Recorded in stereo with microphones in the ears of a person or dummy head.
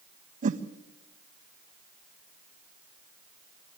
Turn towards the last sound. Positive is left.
turn(degrees=-35)  # may be behind; listen again after turning